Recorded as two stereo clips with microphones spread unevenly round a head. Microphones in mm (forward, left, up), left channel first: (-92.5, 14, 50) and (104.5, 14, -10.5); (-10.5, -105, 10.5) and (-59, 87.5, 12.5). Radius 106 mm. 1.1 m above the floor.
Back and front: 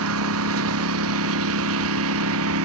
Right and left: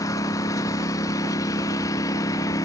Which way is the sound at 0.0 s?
Straight ahead.